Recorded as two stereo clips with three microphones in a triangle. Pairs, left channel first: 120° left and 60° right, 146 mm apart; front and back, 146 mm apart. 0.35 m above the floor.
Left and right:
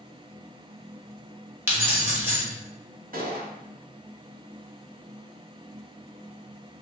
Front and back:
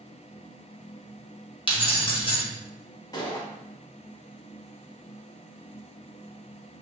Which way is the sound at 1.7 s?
5° left.